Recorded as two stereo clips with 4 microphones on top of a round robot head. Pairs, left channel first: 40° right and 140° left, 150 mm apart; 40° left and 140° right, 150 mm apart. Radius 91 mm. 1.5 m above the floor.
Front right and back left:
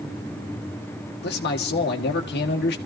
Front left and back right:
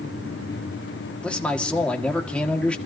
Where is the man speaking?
45° right, 1.5 m.